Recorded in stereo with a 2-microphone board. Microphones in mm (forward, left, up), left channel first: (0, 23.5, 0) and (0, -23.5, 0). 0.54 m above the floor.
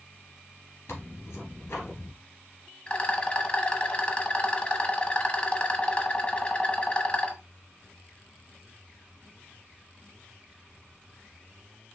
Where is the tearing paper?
70° left (ahead or behind), 2.5 m.